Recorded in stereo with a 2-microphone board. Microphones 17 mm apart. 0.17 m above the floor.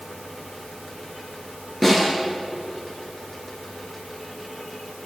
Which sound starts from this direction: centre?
A snare drum, at 1.8 s.